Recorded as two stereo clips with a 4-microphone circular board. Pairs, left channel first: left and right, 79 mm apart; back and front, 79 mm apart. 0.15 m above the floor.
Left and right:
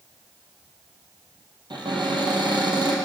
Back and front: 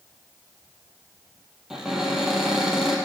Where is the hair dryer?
I don't hear a hair dryer.